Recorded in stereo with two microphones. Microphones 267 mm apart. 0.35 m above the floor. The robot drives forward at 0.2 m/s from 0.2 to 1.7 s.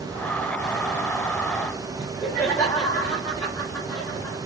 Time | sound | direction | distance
2.0 | laughter | 10° left (ahead or behind) | 1.6 m